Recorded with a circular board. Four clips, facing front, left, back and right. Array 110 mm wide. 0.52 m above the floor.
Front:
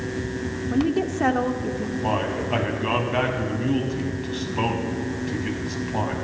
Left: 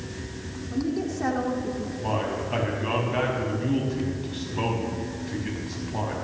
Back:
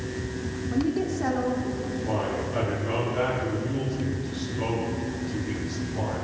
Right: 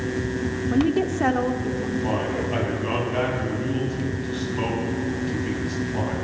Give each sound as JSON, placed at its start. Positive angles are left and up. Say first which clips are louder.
{"t": 0.7, "sound": "a woman speaking", "louder": "right 6 dB, front 3 dB", "azimuth_deg": -65, "distance_m": 1.2}
{"t": 2.0, "sound": "a man speaking", "louder": "even, front 4 dB", "azimuth_deg": 5, "distance_m": 3.0}